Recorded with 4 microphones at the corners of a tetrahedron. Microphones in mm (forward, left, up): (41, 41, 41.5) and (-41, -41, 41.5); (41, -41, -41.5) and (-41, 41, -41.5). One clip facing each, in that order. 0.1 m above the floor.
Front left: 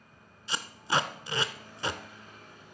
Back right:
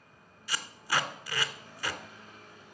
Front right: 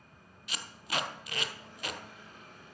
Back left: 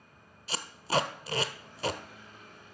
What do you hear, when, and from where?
0.5 s tape being pulled: 100° left, 0.6 m